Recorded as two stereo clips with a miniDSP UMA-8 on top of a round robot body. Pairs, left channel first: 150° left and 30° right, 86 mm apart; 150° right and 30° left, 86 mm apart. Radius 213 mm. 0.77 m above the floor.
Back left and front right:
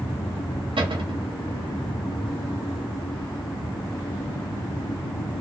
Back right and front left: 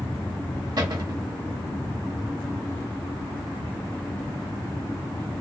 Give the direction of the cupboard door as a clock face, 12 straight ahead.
12 o'clock.